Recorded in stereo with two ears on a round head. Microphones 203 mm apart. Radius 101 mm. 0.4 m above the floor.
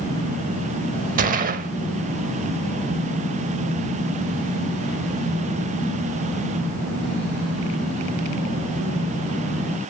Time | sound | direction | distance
1.2 | a gunshot | 35° right (ahead or behind) | 0.7 m